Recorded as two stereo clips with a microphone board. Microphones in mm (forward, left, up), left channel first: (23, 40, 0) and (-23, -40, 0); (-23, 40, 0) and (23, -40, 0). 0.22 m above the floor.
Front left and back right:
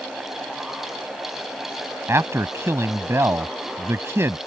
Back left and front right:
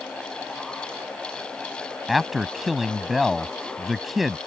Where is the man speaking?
150° right.